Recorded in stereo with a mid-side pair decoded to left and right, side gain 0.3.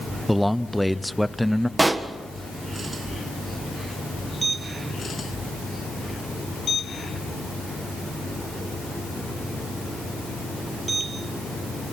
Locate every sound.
0.3 s a man speaking: 5° right, 0.8 m
1.8 s a pop: 40° right, 1.6 m